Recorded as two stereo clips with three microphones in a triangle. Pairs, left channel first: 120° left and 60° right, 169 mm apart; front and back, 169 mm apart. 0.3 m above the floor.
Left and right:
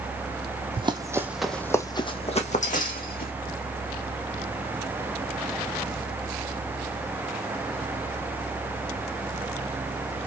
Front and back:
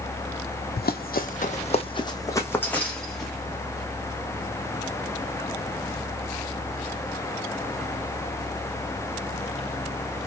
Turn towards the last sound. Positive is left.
turn(degrees=90)